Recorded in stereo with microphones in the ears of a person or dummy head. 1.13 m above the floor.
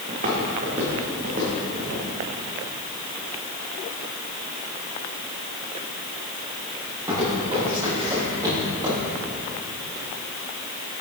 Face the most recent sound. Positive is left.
turn(degrees=-15)  # may be behind; listen again after turning